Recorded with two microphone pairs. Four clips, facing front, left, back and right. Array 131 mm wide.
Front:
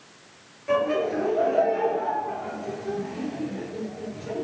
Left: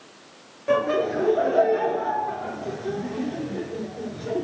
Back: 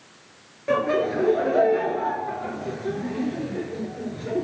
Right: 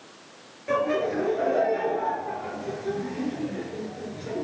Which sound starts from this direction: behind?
Laughter, at 0.7 s.